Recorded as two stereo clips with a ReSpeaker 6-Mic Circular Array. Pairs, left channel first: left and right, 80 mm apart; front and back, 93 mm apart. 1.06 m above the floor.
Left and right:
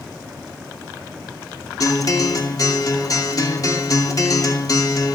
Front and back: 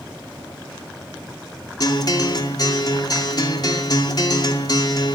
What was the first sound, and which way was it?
A guitar, 45° left.